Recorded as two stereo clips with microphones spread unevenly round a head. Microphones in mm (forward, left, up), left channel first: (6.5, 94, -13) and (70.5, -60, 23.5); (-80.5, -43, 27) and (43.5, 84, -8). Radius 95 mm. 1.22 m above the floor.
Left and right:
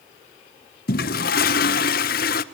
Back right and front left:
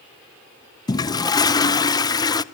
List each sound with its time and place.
0.9 s a toilet flushing: 155° left, 0.6 m